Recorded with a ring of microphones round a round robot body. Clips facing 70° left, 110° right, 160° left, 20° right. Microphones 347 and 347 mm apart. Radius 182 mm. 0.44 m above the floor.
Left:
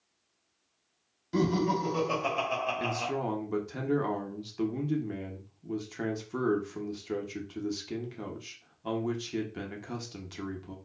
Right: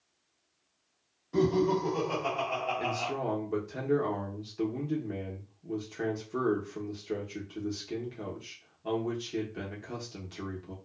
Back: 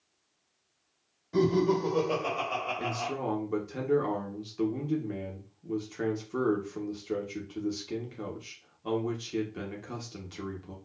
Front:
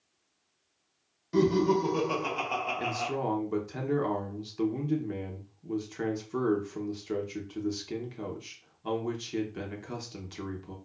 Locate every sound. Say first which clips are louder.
1.3 s laughter: right 2 dB, front 1 dB; 35° left, 1.9 m; by 3.1 s 65° left, 1.4 m
2.8 s a man speaking: left 2 dB, front 2 dB; 45° left, 0.9 m